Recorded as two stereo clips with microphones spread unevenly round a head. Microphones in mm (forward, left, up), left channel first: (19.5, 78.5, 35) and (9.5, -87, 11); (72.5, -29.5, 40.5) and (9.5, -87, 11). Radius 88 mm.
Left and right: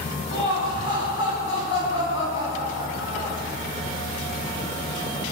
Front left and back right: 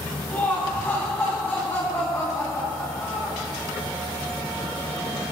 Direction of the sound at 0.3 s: 115° left.